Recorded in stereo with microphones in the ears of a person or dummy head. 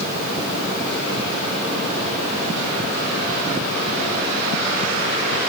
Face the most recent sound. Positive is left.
No sound to turn to.